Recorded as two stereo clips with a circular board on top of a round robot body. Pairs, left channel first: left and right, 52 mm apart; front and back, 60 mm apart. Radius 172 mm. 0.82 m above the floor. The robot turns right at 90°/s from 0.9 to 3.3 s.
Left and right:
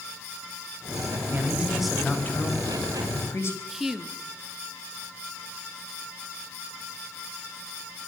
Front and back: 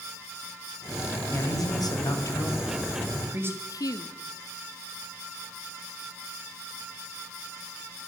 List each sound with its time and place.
1.3 s a man speaking: 50° right, 5.5 m; by 3.6 s 130° left, 5.5 m
3.7 s a woman speaking: 5° right, 2.5 m